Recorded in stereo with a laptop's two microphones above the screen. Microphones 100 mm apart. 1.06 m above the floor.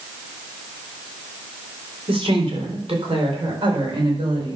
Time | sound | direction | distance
2.1 | a woman speaking | 70° right (ahead or behind) | 3 m